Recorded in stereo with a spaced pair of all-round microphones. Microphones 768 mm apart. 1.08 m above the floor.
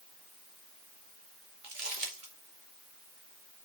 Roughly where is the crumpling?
Right.